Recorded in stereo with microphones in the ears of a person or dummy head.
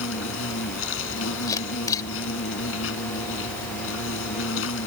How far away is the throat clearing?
No throat clearing in this recording.